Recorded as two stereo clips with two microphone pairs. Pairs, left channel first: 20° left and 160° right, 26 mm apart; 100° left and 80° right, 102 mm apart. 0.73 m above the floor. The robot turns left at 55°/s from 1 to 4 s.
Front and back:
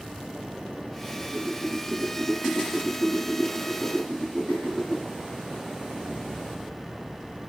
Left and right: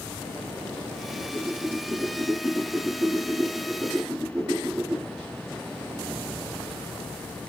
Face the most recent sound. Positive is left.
turn(degrees=-80)